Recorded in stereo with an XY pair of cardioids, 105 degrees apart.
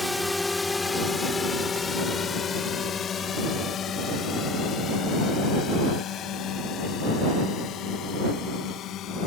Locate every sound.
0.0 s a drone: 5° left; by 9.3 s 75° left